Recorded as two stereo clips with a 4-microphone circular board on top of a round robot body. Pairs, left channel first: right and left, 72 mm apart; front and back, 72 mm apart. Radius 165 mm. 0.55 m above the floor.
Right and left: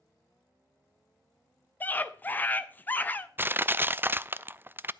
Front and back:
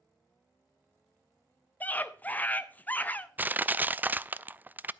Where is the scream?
50° right, 1.0 m.